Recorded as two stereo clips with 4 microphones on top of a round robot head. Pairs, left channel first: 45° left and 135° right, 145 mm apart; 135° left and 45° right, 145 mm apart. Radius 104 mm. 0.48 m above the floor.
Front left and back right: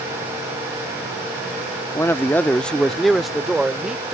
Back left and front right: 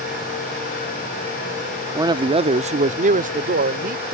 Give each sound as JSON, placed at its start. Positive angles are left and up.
{"t": 1.9, "sound": "a man speaking", "azimuth_deg": -5}